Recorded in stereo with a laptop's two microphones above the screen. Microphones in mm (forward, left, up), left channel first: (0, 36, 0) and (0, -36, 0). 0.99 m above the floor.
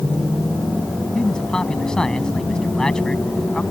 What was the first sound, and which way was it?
A man speaking, 10° left (ahead or behind).